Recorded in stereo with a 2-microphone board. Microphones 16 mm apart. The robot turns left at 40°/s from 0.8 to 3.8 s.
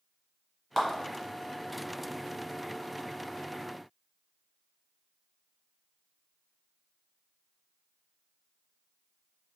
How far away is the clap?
About 1.5 m.